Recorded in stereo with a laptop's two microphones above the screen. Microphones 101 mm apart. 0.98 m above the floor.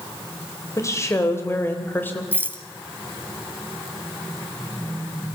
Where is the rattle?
20° right (ahead or behind), 1.1 m.